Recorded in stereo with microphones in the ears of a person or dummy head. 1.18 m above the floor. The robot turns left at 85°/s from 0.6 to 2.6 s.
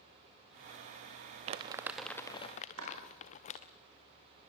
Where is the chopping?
75° right (ahead or behind), 6.5 m.